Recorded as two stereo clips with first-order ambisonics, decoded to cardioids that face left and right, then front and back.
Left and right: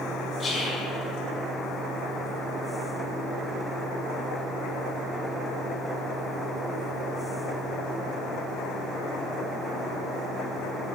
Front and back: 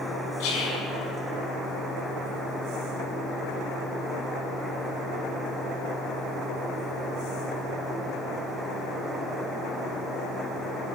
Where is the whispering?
10° left, 5.5 m.